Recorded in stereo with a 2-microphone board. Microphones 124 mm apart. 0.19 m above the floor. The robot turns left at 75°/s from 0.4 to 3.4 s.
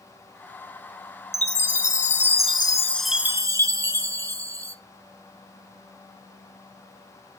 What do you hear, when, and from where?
1.3 s a chime: 130° left, 0.6 m; by 4.8 s 25° right, 0.6 m